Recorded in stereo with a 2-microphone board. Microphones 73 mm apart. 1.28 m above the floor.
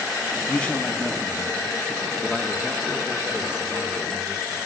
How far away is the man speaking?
About 1.7 m.